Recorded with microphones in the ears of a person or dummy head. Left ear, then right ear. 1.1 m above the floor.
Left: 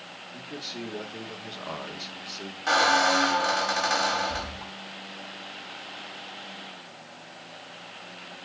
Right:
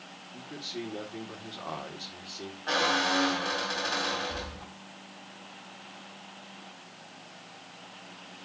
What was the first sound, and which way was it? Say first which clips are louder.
A man speaking: left 1 dB; 5° right (ahead or behind).